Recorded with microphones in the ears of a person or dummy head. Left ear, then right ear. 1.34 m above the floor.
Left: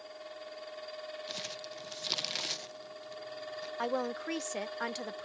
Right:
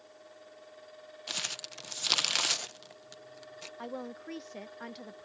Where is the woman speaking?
35° left (ahead or behind).